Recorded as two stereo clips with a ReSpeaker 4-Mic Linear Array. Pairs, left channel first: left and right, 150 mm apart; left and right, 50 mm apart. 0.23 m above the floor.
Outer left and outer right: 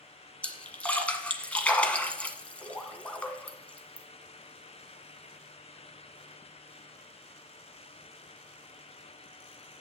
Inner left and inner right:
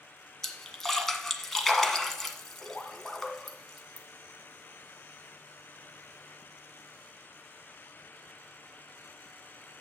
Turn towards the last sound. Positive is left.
turn(degrees=10)  # may be behind; listen again after turning